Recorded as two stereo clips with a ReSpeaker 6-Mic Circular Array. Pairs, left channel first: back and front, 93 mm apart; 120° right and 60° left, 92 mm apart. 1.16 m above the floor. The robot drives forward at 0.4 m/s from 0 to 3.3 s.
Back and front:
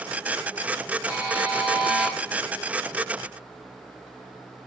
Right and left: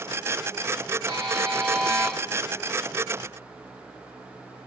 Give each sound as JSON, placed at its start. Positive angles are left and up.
{"t": 1.1, "sound": "a buzzer", "azimuth_deg": 65, "distance_m": 1.2}